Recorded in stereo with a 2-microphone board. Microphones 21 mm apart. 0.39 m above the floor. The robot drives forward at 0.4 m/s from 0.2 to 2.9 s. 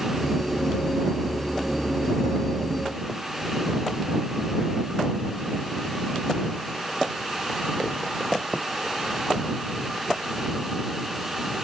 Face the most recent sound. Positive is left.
No sound to turn to.